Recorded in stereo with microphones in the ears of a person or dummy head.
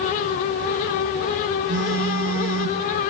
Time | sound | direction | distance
1.7 | a phone buzzing | 40° right (ahead or behind) | 1.4 m